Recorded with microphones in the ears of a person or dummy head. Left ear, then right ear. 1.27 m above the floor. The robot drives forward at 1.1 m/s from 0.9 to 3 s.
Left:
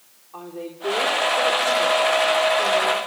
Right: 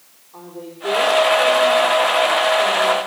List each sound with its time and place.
0.3 s a woman speaking: 70° left (ahead or behind), 3.5 m; by 3.0 s 45° left (ahead or behind), 5 m